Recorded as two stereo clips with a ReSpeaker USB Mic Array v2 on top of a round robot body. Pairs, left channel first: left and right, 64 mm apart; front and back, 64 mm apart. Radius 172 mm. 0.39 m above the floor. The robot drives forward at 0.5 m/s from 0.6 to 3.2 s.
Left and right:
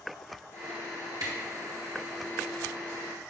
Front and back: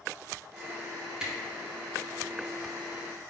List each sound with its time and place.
1.2 s a camera shutter: 100° right, 1.7 m; by 1.3 s 105° right, 1.7 m